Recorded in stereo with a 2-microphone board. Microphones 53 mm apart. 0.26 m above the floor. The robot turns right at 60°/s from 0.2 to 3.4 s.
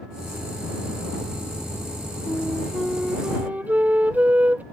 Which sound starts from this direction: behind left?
A flute, at 2.3 s.